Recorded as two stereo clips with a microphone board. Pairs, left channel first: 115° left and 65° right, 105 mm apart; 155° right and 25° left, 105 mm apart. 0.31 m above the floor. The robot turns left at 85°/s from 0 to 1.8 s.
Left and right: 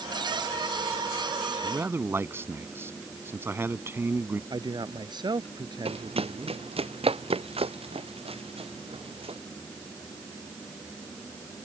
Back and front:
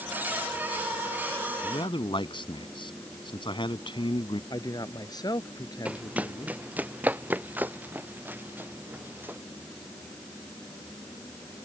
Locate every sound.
1.6 s a man speaking: 115° right; by 4.4 s 130° right
4.5 s a man speaking: 110° right
5.8 s running footsteps: 55° right; by 9.4 s 50° right